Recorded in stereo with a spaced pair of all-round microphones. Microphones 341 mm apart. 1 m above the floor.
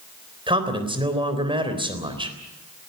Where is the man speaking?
15° right (ahead or behind), 3.5 m.